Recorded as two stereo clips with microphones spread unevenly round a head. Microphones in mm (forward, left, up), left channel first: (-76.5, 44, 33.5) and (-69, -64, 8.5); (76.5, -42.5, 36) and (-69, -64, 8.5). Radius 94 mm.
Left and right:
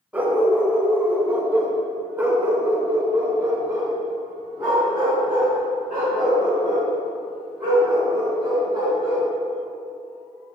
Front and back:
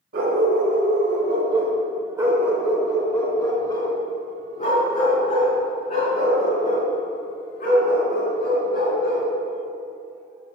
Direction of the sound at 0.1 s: 175° right.